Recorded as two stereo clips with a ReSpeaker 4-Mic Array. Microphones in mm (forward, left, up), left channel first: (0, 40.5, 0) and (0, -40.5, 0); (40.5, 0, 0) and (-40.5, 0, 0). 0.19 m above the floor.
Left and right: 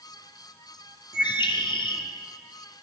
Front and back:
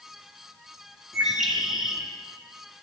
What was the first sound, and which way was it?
A bird, 95° left.